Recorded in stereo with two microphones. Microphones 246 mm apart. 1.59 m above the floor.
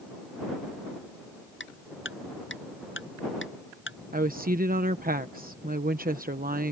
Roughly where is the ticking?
Left.